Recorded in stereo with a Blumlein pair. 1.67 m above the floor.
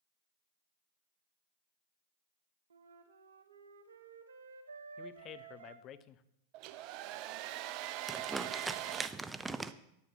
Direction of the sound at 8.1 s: 10° right.